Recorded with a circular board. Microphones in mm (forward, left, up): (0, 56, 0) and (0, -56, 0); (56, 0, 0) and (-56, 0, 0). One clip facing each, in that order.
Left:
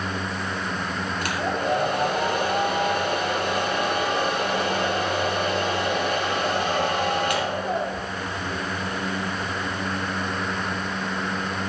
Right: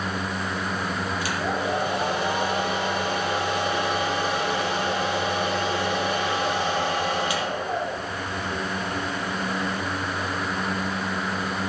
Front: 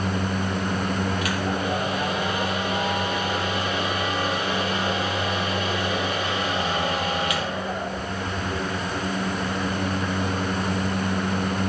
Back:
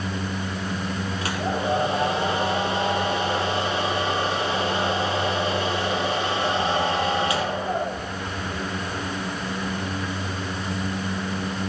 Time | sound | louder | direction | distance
1.2 | a hair dryer | left 3 dB, even | 120° left | 5 m